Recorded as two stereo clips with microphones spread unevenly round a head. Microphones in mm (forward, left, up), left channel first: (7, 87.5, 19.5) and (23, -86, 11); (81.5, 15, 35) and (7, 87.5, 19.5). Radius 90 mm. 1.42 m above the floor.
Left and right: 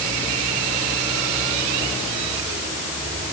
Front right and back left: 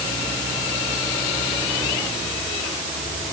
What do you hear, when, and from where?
Only background noise.